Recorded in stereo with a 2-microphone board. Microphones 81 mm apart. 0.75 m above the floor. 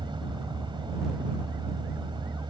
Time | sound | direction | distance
0.0 | a vehicle | 85° right | ?